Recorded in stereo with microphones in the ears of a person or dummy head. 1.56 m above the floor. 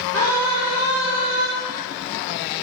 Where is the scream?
50° right (ahead or behind), 3 m; by 1.5 s 70° right (ahead or behind), 3.5 m.